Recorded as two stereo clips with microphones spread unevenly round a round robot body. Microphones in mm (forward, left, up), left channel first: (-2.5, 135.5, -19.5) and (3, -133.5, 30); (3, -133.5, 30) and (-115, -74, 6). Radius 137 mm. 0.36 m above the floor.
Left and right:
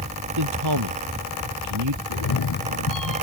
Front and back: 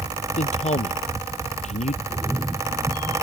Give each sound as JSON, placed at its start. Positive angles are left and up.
{"t": 0.4, "sound": "a man speaking", "azimuth_deg": -60}
{"t": 2.1, "sound": "a cat meowing", "azimuth_deg": 75}